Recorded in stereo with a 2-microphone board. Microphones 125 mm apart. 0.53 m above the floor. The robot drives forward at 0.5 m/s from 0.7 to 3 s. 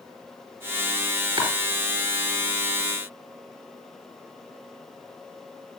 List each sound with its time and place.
1.4 s chopping: 35° right (ahead or behind), 4 m